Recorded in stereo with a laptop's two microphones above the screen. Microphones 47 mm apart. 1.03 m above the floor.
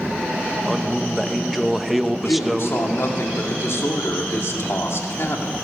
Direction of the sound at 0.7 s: 5° right (ahead or behind).